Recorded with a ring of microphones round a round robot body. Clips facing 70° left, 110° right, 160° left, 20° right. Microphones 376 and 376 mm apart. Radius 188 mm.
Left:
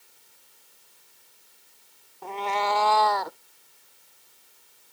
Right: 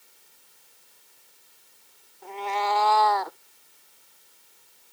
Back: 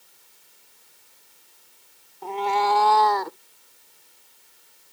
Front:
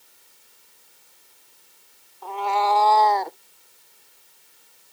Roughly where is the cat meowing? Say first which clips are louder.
Left 1 dB, back 1 dB; left.